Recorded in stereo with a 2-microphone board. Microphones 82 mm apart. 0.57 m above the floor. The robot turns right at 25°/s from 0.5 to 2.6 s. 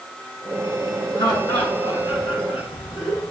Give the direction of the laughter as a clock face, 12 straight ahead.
10 o'clock.